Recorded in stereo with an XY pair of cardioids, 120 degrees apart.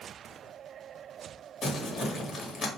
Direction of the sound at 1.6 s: 35° left.